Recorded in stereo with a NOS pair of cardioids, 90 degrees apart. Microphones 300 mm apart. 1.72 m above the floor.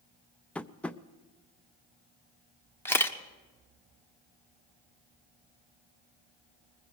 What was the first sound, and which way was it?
Tapping, 5° left.